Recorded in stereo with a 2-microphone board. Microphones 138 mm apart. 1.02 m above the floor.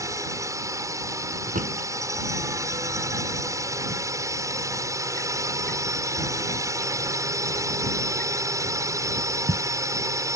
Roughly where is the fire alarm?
No fire alarm in this recording.